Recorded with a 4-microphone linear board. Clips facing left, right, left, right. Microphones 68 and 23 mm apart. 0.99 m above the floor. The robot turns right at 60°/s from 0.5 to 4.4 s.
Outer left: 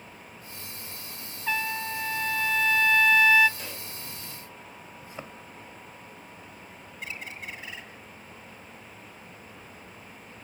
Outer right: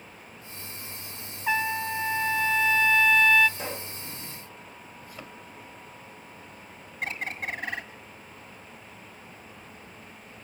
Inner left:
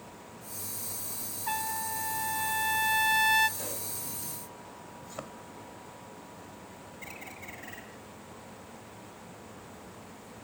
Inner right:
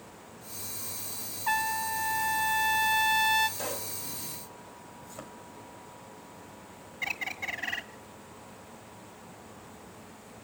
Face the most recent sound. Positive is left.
turn(degrees=-55)  # may be behind; listen again after turning